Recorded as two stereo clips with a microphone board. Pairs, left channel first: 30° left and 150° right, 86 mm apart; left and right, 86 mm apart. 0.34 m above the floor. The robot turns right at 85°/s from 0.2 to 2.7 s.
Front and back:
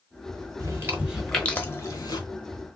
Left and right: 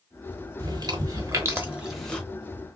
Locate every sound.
0.6 s chewing: 115° right, 1.0 m; by 2.2 s 20° left, 1.0 m